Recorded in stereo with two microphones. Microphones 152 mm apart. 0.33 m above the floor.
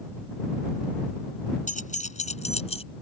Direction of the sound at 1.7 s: 60° left (ahead or behind).